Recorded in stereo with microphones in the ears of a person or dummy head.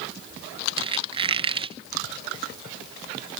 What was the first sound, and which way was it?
A squeak, 30° right (ahead or behind).